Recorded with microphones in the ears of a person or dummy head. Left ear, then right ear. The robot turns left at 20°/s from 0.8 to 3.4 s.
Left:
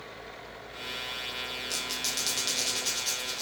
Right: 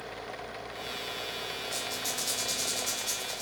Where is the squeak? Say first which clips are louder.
Left 3 dB; 60° left (ahead or behind), 1.2 m; by 3.4 s 25° left (ahead or behind), 1.2 m.